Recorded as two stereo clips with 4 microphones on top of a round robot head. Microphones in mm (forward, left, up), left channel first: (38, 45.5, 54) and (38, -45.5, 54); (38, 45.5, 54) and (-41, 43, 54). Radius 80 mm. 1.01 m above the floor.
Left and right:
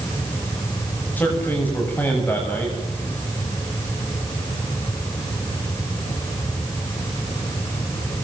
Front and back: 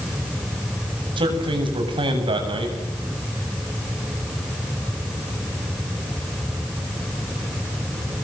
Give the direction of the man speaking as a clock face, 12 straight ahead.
6 o'clock.